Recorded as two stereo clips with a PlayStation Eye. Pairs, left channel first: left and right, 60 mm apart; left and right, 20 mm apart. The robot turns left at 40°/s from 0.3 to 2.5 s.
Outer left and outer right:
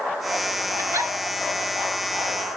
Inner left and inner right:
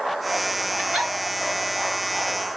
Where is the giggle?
50° right (ahead or behind), 3 m; by 1.1 s 60° right (ahead or behind), 3 m.